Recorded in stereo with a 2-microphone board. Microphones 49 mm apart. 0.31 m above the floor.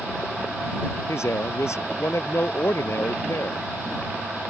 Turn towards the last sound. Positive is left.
turn(degrees=70)  # may be behind; listen again after turning